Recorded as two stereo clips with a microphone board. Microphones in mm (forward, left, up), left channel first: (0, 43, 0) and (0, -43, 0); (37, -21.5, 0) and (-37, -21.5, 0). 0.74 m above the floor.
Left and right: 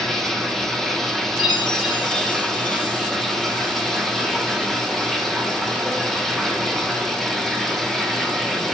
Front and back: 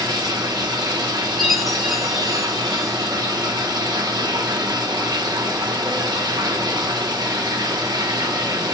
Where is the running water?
175° left, 0.9 m.